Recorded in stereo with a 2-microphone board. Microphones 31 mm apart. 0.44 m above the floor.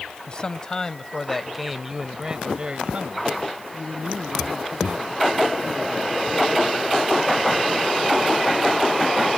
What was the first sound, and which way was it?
A man speaking, 35° left (ahead or behind).